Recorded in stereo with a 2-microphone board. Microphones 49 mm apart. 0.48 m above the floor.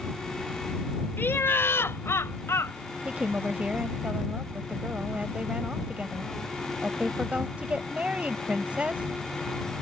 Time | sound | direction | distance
1.2 | laughter | 50° left (ahead or behind) | ?
3.0 | a woman speaking | 30° right (ahead or behind) | ?